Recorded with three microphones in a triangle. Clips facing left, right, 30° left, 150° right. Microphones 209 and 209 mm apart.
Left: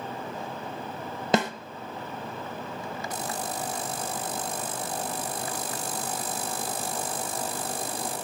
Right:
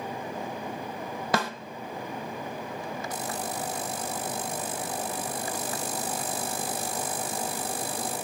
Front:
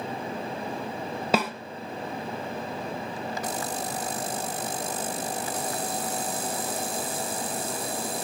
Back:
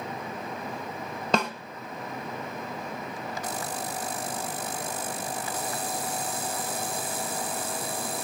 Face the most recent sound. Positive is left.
turn(degrees=105)